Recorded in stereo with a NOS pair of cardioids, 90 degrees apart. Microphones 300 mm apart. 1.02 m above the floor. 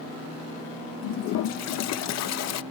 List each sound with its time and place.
1.0 s a toilet flushing: 70° left